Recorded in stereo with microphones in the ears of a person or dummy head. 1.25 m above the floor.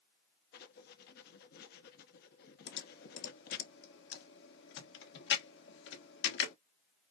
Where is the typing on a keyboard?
70° left (ahead or behind), 1.3 m.